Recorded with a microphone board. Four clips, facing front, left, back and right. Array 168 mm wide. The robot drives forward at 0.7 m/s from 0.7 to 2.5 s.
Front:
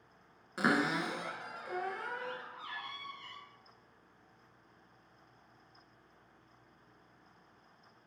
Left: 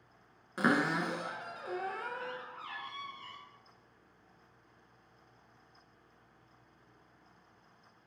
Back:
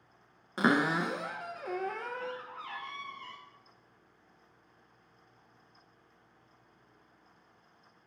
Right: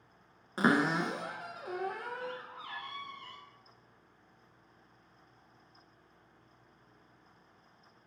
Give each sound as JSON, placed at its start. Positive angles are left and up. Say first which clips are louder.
{"t": 0.6, "sound": "a cupboard door", "louder": "right 2 dB, back 4 dB", "azimuth_deg": -150, "distance_m": 0.6}